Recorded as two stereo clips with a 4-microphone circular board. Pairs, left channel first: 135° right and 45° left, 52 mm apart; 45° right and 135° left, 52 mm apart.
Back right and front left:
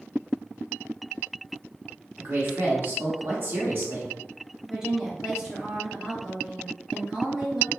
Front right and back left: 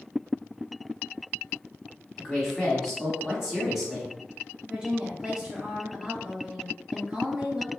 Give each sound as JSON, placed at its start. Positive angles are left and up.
{"t": 2.2, "sound": "a woman speaking", "azimuth_deg": 50, "distance_m": 1.4}
{"t": 4.7, "sound": "a woman speaking", "azimuth_deg": 105, "distance_m": 0.9}